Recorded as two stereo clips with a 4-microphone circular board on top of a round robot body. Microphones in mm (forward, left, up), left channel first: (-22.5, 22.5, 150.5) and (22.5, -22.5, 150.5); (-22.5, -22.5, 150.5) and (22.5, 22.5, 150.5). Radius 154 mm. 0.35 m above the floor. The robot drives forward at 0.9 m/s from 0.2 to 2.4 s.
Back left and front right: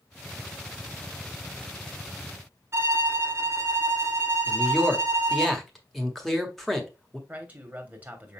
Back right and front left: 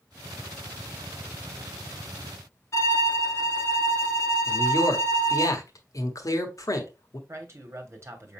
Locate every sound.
2.7 s a violin: 95° right, 1.0 m
4.5 s a man speaking: 140° right, 1.6 m
7.3 s a man speaking: 15° left, 1.3 m